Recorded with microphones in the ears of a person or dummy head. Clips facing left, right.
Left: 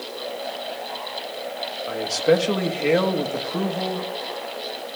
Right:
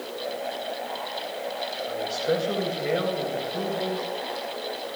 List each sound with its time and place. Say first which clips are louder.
1.9 s a man speaking: left 7 dB; 80° left, 1.7 m